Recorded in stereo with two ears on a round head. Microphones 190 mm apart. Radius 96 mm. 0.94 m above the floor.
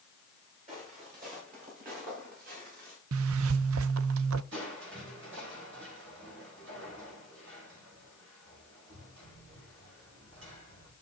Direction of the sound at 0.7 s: 40° right (ahead or behind).